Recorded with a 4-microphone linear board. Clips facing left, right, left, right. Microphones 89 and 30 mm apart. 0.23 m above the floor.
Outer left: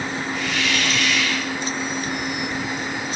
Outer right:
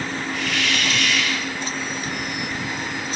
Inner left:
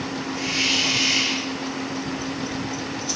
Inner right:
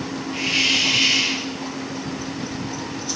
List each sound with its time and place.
0.3 s a hiss: 60° right (ahead or behind), 4.5 m